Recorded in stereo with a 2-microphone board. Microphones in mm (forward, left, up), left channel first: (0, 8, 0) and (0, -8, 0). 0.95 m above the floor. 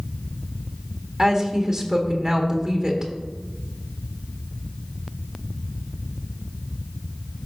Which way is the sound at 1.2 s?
45° right (ahead or behind).